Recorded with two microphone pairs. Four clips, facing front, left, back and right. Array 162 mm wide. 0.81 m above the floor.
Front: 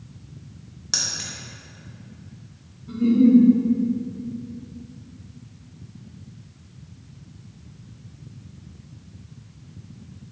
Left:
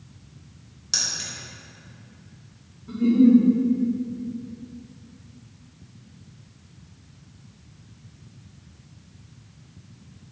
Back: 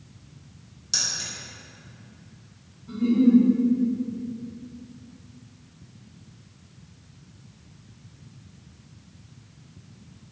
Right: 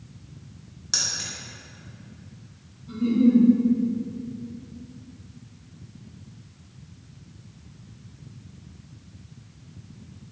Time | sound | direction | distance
0.9 | keys jangling | 5° right | 0.6 m
2.9 | a giggle | 55° left | 0.9 m